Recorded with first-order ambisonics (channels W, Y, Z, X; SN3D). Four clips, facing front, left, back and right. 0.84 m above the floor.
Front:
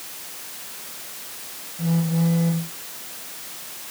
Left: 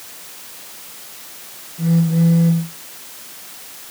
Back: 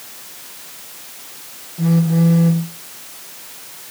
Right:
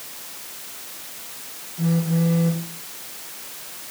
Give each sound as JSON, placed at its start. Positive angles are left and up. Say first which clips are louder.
{"t": 1.8, "sound": "a phone buzzing", "louder": "left 5 dB, back 7 dB", "azimuth_deg": -170, "distance_m": 2.5}